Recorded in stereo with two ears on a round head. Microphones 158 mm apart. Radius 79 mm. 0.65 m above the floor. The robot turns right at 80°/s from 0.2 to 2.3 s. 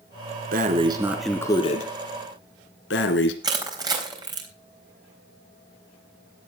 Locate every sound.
0.5 s breathing: 55° right, 1.9 m; by 3.3 s 85° left, 1.9 m
3.4 s crushing: 25° right (ahead or behind), 3.5 m